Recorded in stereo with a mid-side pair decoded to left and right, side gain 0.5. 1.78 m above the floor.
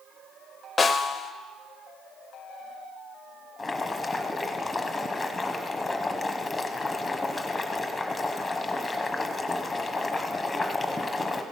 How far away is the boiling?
About 1.4 m.